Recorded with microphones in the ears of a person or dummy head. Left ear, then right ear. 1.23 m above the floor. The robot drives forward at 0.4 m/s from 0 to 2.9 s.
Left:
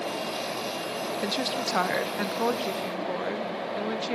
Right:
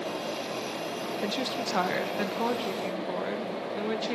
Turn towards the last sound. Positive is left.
turn(degrees=10)  # may be behind; listen again after turning